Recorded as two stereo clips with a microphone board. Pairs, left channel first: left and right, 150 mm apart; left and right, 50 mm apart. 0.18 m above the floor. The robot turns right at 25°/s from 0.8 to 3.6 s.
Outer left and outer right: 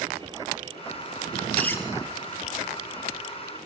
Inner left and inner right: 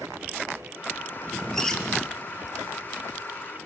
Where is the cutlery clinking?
10° left (ahead or behind), 2 m; by 1.8 s 15° left (ahead or behind), 2 m.